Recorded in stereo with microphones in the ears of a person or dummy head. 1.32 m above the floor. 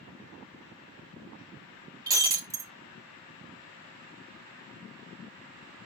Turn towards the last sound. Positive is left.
turn(degrees=-15)  # may be behind; listen again after turning